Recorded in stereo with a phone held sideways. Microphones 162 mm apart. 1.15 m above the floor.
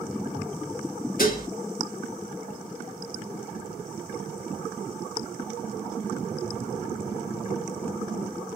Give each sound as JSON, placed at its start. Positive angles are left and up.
{"t": 1.2, "sound": "dishes clattering", "side_deg": 60, "distance_m": 1.5}